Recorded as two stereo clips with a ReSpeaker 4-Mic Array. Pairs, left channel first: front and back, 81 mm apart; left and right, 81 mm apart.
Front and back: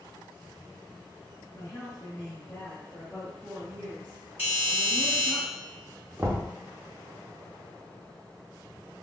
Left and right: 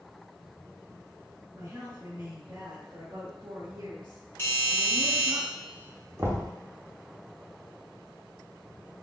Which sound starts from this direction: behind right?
Knocking, at 6.2 s.